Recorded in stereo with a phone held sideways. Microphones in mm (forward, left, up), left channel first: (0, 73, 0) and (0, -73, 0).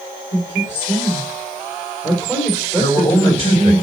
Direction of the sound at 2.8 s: 35° left (ahead or behind).